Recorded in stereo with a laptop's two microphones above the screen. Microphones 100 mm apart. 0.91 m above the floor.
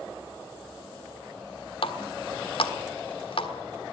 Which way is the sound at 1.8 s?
65° left (ahead or behind).